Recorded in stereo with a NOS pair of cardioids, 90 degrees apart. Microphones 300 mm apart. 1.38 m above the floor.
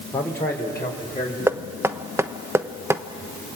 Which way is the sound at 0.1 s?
5° left.